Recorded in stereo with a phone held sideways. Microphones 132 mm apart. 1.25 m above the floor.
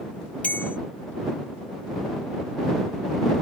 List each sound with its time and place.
0.4 s a bell: 10° left (ahead or behind)